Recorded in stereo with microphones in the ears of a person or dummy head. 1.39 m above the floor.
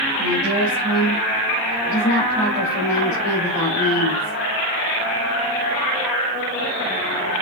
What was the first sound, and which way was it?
A woman speaking, 20° right (ahead or behind).